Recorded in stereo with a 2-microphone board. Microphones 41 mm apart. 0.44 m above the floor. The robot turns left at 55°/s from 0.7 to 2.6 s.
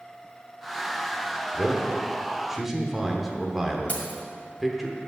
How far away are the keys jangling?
About 1.8 m.